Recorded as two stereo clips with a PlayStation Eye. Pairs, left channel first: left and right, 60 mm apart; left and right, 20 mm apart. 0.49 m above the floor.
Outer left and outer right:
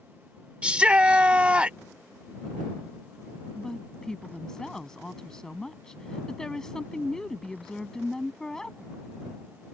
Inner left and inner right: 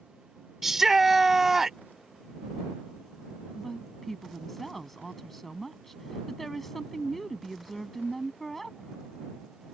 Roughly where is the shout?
Centre.